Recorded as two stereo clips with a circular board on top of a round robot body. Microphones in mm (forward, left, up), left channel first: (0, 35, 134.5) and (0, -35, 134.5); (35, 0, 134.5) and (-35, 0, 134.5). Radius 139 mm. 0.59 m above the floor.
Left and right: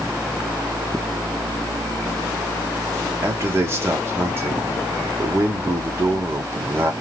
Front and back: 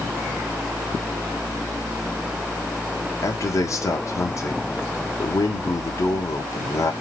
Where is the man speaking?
40° right, 1.5 m.